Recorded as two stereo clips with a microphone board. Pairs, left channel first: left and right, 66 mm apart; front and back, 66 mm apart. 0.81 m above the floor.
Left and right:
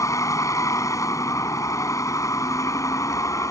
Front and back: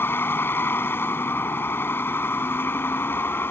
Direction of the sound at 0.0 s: 55° left.